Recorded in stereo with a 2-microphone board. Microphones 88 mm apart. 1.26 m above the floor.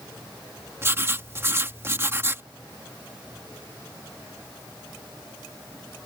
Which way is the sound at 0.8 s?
30° right (ahead or behind).